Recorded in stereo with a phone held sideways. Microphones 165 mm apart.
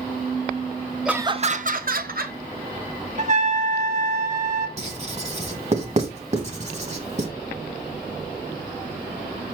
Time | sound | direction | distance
1.1 | laughter | 5° right (ahead or behind) | 0.6 m
3.2 | a trumpet | 50° right (ahead or behind) | 1.1 m
4.8 | writing | 45° right (ahead or behind) | 1.5 m